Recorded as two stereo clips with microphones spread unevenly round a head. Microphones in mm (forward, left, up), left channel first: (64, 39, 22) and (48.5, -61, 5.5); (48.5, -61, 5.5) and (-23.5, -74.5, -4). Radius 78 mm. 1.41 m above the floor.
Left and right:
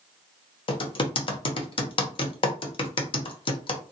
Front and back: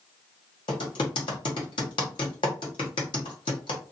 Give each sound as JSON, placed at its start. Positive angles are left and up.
{"t": 0.7, "sound": "typing on a keyboard", "azimuth_deg": 45, "distance_m": 0.7}